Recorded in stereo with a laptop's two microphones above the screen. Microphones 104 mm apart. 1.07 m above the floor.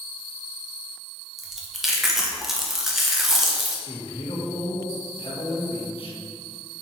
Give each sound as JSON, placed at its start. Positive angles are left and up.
{"t": 1.4, "sound": "chewing", "side_deg": -5, "distance_m": 0.7}
{"t": 3.9, "sound": "a man speaking", "side_deg": 60, "distance_m": 1.6}